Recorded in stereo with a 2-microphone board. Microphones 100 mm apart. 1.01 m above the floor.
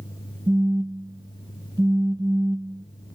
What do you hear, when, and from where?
0.5 s a phone buzzing: 40° right (ahead or behind), 0.7 m